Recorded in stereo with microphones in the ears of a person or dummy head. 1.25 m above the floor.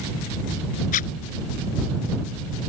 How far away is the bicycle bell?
I don't hear a bicycle bell.